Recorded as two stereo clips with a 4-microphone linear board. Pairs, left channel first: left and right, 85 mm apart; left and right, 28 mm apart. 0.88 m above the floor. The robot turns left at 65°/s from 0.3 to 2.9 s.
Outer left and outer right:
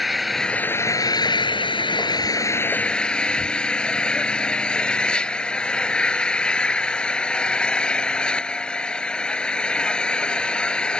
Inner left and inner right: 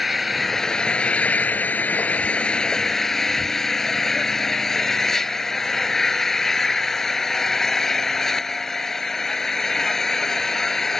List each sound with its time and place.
0.0 s an engine running: straight behind; by 11.0 s 10° left